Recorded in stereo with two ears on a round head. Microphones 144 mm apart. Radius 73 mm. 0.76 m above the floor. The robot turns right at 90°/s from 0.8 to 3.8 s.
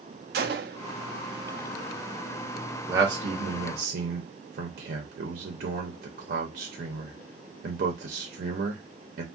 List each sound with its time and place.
0.3 s a gunshot: 65° right (ahead or behind), 0.7 m
2.9 s a man speaking: 15° right (ahead or behind), 0.6 m; by 9.2 s 55° right (ahead or behind), 0.6 m